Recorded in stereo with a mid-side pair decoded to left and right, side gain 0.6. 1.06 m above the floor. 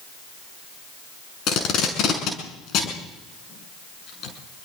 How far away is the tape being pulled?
About 6.5 m.